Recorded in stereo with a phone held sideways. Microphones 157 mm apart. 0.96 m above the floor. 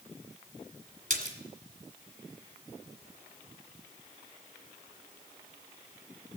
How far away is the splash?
About 1.8 m.